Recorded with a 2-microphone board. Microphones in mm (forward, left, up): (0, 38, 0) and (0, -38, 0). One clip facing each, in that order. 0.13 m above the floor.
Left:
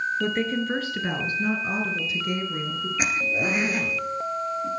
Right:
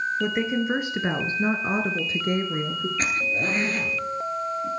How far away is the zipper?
About 1.9 m.